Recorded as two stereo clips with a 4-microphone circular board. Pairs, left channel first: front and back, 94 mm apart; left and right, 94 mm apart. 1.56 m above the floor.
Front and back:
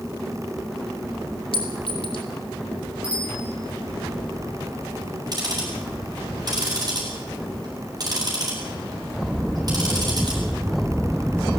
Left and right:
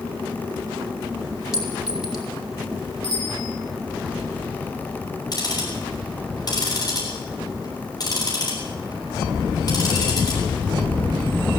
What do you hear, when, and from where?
1.5 s a clink: 5° right, 3.5 m
3.0 s a bicycle bell: 105° left, 6.5 m
5.3 s ticking: 135° left, 8.5 m